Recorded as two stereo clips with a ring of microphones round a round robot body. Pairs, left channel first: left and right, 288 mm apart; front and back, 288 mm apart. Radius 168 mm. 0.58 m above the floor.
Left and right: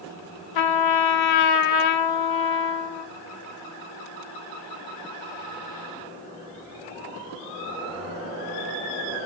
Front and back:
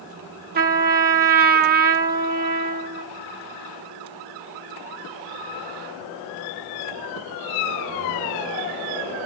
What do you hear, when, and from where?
0.6 s a trumpet: 115° left, 0.6 m